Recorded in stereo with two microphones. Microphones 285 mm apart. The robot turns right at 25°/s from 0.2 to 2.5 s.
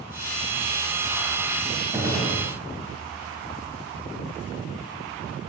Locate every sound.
1.9 s a gunshot: 10° right (ahead or behind), 7.5 m; by 2.4 s 20° right (ahead or behind), 7.5 m